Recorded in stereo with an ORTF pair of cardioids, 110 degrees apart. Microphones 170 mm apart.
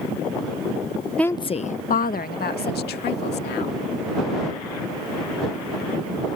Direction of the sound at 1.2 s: 5° left.